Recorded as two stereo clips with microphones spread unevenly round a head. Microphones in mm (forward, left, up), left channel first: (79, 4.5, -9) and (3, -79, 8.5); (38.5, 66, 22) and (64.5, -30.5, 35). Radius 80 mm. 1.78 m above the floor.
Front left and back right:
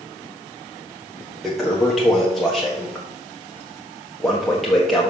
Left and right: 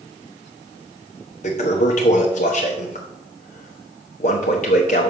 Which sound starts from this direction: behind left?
A toilet flushing, at 1.4 s.